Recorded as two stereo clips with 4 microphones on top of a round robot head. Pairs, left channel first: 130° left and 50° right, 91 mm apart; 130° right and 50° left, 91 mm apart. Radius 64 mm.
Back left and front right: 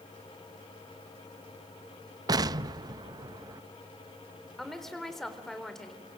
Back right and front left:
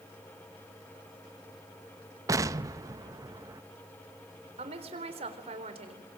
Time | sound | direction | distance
2.3 | an explosion | 5° right | 0.7 m
4.6 | a woman speaking | 45° left | 4 m